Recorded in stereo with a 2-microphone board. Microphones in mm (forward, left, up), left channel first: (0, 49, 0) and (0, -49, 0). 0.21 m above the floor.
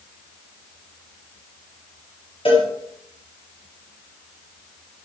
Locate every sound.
2.5 s a cowbell: 65° left (ahead or behind), 5.5 m